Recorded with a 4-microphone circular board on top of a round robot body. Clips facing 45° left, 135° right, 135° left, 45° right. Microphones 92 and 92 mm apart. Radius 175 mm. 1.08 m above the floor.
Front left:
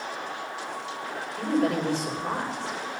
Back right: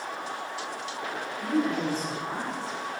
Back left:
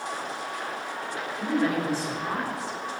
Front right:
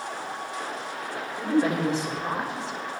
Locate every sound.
1.4 s a woman speaking: 25° left, 5.5 m